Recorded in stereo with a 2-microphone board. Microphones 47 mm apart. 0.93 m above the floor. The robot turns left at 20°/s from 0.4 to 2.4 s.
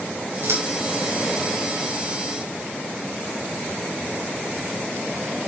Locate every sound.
0.4 s scissors: 80° right, 7 m